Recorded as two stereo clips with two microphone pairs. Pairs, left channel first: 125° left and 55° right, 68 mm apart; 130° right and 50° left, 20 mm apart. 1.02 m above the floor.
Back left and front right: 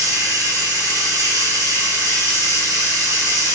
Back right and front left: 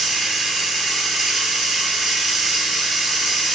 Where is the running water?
35° right, 1.2 m.